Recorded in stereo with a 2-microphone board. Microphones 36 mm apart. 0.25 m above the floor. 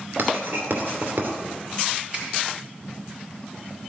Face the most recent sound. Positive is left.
turn(degrees=-35)  # may be behind; listen again after turning